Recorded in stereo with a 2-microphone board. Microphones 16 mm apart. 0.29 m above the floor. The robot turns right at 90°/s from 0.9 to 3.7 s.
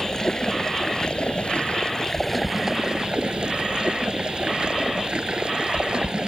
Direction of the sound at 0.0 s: 40° left.